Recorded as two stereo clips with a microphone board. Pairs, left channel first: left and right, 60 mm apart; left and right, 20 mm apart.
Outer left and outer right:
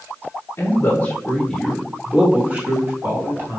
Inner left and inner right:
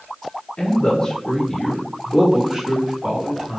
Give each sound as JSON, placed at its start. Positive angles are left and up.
{"t": 0.6, "sound": "a man speaking", "side_deg": 40, "distance_m": 1.2}